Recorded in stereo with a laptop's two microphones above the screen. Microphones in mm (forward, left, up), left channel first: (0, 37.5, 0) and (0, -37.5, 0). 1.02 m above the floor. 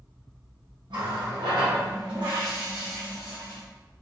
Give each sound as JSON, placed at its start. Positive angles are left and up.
{"t": 0.9, "sound": "a running tap", "side_deg": -70, "distance_m": 1.1}